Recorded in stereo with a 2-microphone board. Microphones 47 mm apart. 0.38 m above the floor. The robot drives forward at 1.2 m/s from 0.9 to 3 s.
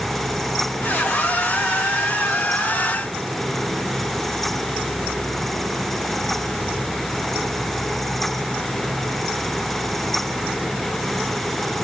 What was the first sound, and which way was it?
Only background noise.